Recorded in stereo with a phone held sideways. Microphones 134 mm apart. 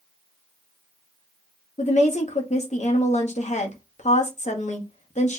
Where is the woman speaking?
60° left (ahead or behind), 0.8 m.